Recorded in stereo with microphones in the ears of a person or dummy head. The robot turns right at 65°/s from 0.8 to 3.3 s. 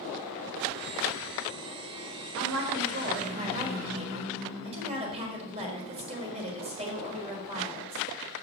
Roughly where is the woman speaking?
Right.